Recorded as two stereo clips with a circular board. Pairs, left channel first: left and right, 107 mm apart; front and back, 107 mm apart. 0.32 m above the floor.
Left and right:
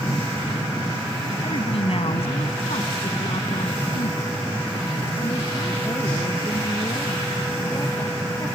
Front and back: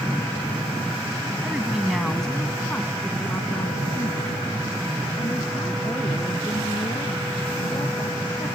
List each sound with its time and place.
1.4 s a woman speaking: 105° left; by 8.6 s 40° left